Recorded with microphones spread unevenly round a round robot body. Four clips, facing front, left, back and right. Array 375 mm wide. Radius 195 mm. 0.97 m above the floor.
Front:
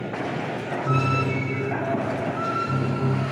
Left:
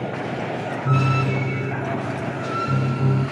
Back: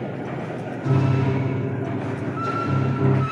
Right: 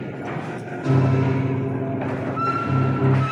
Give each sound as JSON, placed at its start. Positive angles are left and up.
{"t": 0.8, "sound": "a piano", "azimuth_deg": -135, "distance_m": 3.0}